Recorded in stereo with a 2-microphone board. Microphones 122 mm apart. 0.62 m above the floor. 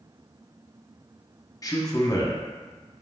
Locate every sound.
1.6 s a man speaking: 30° left (ahead or behind), 0.7 m